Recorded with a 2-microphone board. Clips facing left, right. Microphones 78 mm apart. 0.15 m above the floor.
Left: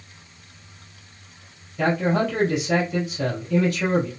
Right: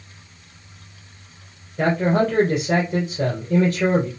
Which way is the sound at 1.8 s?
55° right (ahead or behind).